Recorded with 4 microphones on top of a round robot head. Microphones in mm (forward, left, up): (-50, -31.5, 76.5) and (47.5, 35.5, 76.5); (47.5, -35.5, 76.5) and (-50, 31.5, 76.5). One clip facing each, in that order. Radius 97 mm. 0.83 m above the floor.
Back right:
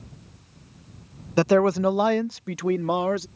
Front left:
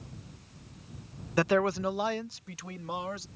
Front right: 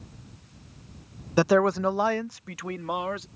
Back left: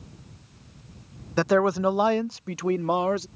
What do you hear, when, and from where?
1.4 s a man speaking: 105° right; by 3.3 s 165° right